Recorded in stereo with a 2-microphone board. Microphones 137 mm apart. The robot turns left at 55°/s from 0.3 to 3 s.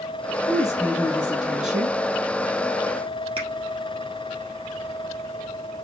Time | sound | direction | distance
0.5 | a woman speaking | 20° left (ahead or behind) | 1.1 m
3.4 | a finger snap | 45° right (ahead or behind) | 2 m